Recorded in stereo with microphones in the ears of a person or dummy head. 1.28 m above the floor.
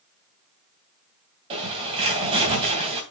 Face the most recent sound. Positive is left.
turn(degrees=-30)  # may be behind; listen again after turning